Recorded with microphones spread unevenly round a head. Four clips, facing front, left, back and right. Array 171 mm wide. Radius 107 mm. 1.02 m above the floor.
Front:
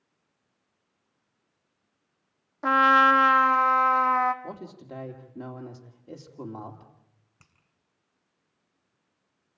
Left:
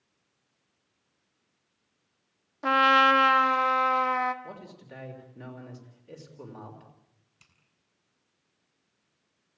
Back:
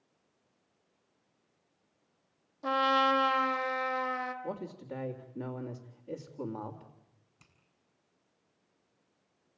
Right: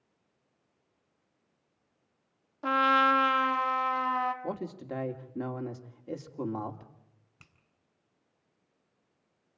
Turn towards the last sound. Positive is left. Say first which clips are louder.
# right 6 dB, front 3 dB
turn(degrees=-40)